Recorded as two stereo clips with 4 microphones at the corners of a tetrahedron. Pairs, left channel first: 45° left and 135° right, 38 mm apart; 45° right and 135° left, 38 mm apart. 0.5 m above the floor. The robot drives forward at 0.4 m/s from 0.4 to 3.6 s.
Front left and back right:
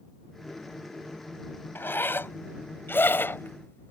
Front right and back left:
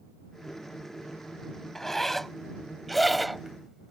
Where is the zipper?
35° left; by 3.9 s 45° left.